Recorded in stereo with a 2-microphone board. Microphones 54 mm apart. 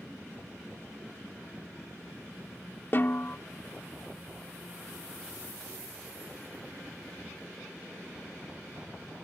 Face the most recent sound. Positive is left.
turn(degrees=40)  # may be behind; listen again after turning